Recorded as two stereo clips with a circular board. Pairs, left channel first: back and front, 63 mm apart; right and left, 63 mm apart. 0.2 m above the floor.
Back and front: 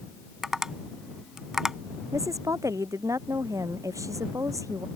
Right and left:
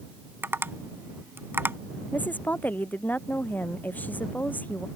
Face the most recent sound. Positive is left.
turn(degrees=-30)